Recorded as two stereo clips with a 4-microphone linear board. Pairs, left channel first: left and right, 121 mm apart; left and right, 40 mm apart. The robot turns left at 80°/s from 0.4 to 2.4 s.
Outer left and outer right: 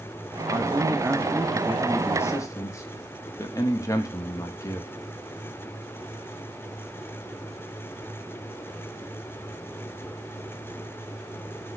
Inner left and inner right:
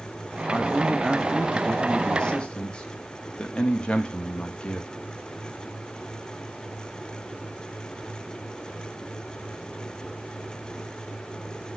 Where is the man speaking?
90° right, 0.5 m; by 4.9 s 120° left, 0.5 m.